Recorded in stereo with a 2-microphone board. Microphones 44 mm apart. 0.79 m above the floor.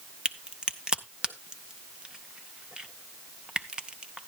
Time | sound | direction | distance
0.2 | a crack | 20° right (ahead or behind) | 0.6 m